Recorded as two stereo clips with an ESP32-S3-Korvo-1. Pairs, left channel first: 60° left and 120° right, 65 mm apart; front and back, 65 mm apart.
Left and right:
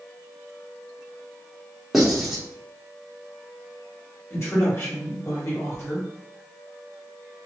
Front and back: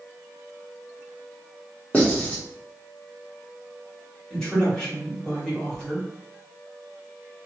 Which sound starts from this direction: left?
A man speaking, at 4.3 s.